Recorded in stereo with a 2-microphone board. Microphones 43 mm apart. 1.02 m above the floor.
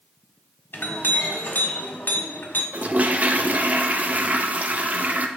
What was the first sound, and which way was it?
A clink, 55° left (ahead or behind).